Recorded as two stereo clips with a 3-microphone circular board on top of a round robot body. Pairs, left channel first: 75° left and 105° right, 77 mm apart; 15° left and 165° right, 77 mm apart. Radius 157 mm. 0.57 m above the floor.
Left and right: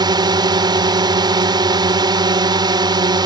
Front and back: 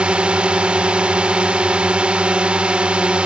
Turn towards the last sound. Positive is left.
turn(degrees=-90)